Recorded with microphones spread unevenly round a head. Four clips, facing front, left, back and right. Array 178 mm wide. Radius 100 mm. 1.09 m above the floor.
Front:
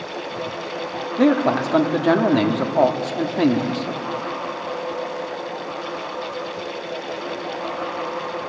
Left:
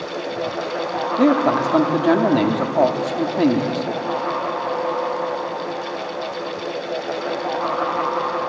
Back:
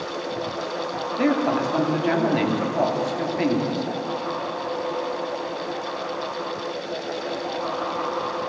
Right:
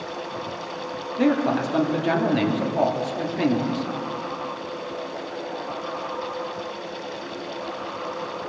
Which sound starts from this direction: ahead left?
A man speaking, at 1.2 s.